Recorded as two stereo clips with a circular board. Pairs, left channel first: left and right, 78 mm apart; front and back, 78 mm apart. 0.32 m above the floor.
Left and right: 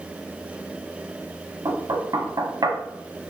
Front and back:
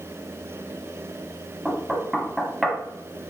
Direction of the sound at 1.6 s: 95° right.